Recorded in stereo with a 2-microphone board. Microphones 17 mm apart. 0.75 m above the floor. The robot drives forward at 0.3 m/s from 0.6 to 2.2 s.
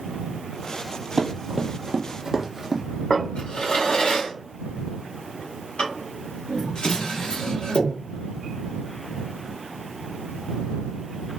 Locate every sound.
1.2 s running footsteps: 25° right (ahead or behind), 1.0 m; by 2.8 s 20° right (ahead or behind), 1.1 m
3.1 s a drawer: 70° left (ahead or behind), 1.0 m